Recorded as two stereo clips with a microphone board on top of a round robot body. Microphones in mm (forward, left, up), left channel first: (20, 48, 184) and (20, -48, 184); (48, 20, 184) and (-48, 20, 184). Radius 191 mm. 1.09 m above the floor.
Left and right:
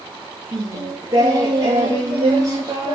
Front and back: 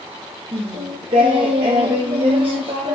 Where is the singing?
145° right, 0.5 m.